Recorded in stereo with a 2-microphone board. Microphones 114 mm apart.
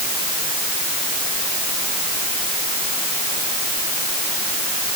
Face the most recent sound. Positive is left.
No sound to turn to.